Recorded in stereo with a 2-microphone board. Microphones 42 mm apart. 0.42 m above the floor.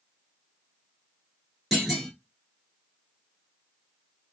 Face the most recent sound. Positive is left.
turn(degrees=-5)  # may be behind; listen again after turning